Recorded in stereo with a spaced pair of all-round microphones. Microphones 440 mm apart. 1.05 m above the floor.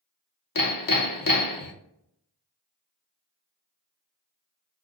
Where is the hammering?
50° left (ahead or behind), 0.7 m.